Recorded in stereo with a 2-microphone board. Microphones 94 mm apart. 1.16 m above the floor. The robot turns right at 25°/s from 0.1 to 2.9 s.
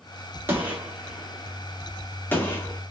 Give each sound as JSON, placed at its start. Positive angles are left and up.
{"t": 0.5, "sound": "a gunshot", "side_deg": -25, "distance_m": 1.2}